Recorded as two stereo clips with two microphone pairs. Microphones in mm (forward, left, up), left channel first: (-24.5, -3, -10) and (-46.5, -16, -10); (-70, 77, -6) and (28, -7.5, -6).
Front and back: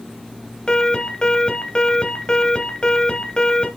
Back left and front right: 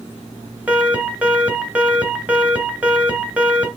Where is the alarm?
35° left, 2 m.